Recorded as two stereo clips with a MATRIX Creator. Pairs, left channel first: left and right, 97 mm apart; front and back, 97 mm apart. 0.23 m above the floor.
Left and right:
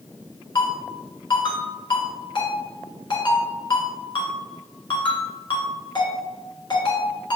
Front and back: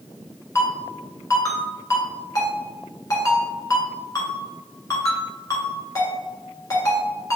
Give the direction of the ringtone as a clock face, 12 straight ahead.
10 o'clock.